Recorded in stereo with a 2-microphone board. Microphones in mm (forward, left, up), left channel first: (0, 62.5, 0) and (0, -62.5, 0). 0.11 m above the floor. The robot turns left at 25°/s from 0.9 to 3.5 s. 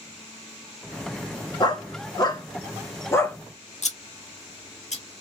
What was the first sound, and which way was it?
A dog barking, 35° left (ahead or behind).